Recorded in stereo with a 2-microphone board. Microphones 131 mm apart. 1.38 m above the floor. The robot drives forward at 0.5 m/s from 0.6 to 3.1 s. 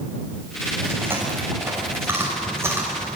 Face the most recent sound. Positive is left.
turn(degrees=-20)  # may be behind; listen again after turning